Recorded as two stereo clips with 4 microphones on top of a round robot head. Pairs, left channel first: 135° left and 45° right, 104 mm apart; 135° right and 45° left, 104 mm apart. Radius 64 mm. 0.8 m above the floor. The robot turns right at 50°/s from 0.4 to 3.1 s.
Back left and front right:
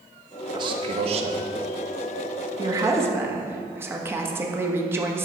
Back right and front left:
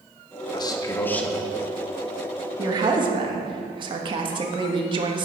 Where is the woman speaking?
5° right, 1.3 m; by 5.2 s 20° left, 1.3 m.